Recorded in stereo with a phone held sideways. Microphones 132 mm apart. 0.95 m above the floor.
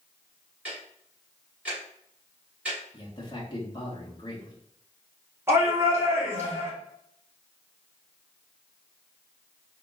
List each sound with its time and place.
0.7 s ticking: 10° right (ahead or behind), 3 m
2.9 s a man speaking: 35° left (ahead or behind), 1.4 m
5.5 s a shout: 20° right (ahead or behind), 2 m